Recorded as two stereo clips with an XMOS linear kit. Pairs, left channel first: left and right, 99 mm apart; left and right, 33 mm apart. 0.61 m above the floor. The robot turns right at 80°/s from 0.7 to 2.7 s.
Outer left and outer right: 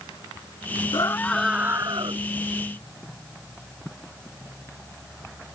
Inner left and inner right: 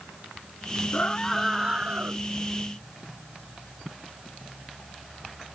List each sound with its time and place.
0.9 s a scream: 140° left; by 2.2 s 120° right